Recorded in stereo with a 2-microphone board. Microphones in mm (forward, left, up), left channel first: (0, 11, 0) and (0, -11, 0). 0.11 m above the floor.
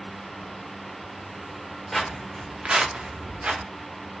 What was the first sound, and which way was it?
Footsteps, 10° left (ahead or behind).